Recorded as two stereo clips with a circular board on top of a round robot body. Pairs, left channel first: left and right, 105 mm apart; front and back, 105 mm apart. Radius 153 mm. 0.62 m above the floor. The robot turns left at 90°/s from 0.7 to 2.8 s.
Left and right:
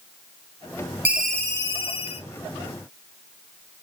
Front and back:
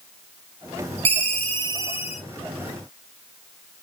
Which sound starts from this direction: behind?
A ringtone, at 1.1 s.